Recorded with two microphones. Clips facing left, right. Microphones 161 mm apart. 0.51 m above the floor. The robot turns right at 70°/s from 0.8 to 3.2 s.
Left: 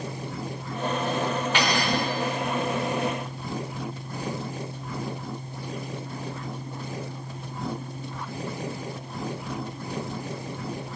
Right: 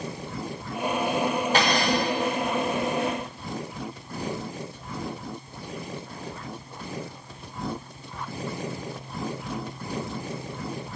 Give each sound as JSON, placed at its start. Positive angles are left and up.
{"t": 1.5, "sound": "cutlery clinking", "azimuth_deg": -45, "distance_m": 0.9}